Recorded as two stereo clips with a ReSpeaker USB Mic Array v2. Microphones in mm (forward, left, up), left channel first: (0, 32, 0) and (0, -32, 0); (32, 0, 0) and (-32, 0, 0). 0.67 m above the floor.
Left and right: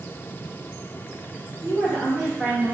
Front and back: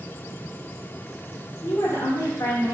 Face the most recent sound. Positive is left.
turn(degrees=-10)